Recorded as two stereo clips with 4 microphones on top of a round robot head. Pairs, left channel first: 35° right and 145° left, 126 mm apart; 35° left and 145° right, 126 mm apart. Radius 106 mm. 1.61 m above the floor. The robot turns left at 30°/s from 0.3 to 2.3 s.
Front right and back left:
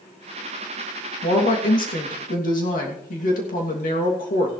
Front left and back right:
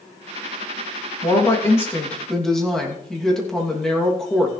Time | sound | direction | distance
1.2 | a woman speaking | 15° right | 3 m